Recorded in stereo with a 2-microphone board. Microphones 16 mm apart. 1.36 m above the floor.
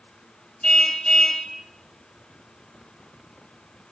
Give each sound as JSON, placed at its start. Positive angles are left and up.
{"t": 0.6, "sound": "a car horn", "side_deg": 35, "distance_m": 3.5}